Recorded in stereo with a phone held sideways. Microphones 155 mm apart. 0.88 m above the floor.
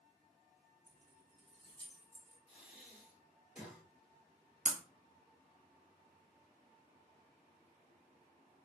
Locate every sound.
0.9 s keys jangling: 75° right (ahead or behind), 0.7 m; by 2.4 s 15° right (ahead or behind), 1.3 m
2.5 s breathing: 5° right (ahead or behind), 1.7 m
4.7 s breaking glass: 55° right (ahead or behind), 0.5 m